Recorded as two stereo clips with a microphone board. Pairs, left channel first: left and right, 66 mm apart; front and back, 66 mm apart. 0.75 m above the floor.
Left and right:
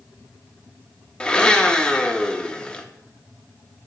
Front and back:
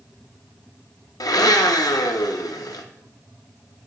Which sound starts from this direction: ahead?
A blender, at 1.2 s.